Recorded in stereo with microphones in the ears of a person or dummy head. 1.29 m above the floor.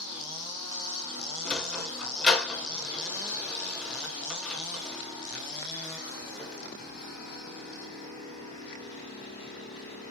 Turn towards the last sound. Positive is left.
turn(degrees=10)  # may be behind; listen again after turning